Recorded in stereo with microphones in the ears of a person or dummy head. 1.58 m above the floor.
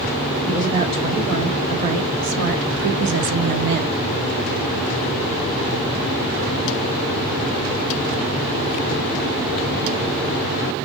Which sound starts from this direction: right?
A woman speaking, at 0.5 s.